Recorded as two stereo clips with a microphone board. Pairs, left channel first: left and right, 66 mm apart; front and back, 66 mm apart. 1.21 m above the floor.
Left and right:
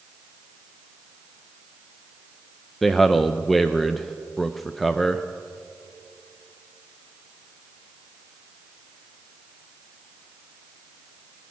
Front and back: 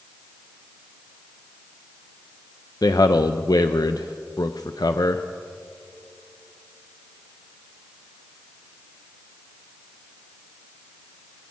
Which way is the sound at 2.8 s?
Straight ahead.